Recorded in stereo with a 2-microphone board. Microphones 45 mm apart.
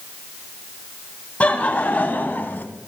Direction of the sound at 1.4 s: 35° left (ahead or behind).